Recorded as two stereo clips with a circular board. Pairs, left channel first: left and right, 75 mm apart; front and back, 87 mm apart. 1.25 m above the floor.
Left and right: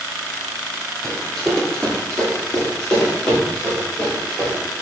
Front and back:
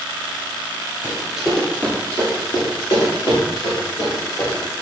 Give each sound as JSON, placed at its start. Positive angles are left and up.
{"t": 1.0, "sound": "running footsteps", "azimuth_deg": 175, "distance_m": 1.2}